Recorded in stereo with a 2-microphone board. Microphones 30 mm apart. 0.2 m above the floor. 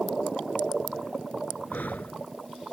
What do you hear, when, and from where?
1.7 s breathing: 70° left (ahead or behind)